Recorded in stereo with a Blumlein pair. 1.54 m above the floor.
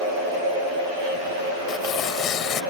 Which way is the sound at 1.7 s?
30° left.